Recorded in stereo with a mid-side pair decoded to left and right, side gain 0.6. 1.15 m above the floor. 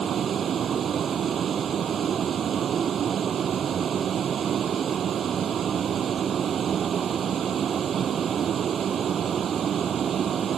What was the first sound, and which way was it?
A vehicle, 40° right.